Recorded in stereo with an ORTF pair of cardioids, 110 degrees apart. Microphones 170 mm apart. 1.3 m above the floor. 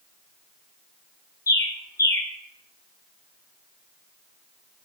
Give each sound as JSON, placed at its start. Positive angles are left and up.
{"t": 1.5, "sound": "a bird", "azimuth_deg": 20, "distance_m": 0.6}